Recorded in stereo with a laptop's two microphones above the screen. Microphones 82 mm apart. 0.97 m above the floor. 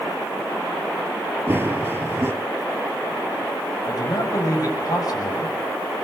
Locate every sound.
1.5 s running footsteps: 25° right (ahead or behind), 1.0 m
3.9 s a man speaking: 50° left (ahead or behind), 6.5 m